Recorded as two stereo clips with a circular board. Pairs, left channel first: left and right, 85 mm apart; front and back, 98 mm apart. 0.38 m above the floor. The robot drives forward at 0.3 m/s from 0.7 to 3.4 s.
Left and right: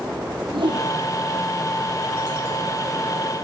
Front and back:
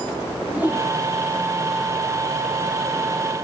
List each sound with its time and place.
0.5 s a whoosh: 105° right, 4 m